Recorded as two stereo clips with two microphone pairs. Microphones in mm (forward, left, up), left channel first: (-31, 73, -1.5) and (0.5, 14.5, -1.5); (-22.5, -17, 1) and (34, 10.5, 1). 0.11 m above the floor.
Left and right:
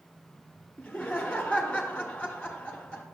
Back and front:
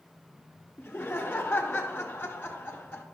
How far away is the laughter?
About 1.1 m.